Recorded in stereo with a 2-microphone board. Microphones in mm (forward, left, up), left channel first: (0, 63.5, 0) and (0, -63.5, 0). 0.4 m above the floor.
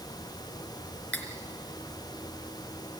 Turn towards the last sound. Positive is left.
turn(degrees=15)  # may be behind; listen again after turning